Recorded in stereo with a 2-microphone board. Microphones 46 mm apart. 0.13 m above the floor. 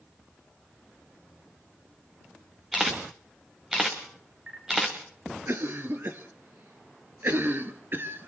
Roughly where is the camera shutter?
Centre.